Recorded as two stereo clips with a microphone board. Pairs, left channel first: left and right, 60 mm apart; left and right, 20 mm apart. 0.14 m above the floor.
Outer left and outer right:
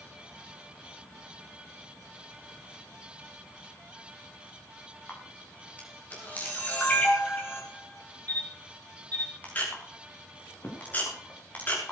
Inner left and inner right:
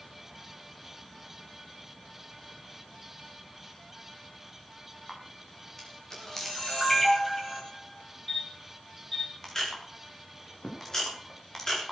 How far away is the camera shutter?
About 6.5 m.